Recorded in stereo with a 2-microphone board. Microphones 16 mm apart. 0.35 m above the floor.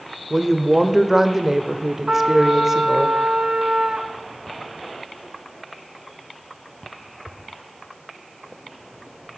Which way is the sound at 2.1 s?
75° right (ahead or behind).